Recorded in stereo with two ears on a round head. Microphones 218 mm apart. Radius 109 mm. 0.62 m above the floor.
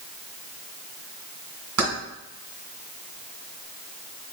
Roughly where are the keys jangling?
Right.